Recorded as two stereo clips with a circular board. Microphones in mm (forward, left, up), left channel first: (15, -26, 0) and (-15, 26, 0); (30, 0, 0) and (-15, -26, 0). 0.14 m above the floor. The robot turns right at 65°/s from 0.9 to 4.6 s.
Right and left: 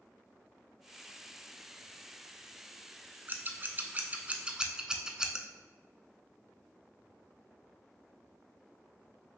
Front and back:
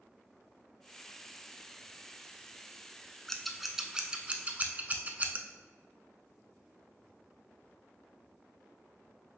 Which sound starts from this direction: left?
Scissors, at 3.3 s.